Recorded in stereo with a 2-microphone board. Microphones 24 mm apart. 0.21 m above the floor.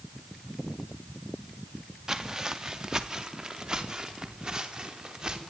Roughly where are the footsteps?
Right.